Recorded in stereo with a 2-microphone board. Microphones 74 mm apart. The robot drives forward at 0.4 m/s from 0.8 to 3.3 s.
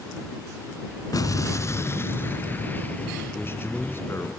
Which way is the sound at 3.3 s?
30° left (ahead or behind).